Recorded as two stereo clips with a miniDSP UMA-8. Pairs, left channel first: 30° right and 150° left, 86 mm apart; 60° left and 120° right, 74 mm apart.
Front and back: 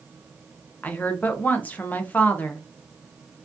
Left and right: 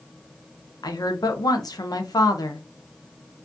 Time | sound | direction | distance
0.8 | a woman speaking | 40° left | 0.5 m